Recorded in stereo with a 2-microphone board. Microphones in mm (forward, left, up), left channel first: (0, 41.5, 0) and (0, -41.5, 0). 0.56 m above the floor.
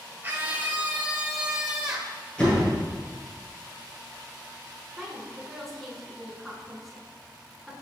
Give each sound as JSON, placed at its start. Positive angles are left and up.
{"t": 0.2, "sound": "a scream", "side_deg": -25, "distance_m": 1.4}
{"t": 2.4, "sound": "a door slam", "side_deg": 15, "distance_m": 7.0}
{"t": 5.0, "sound": "a woman speaking", "side_deg": 0, "distance_m": 5.0}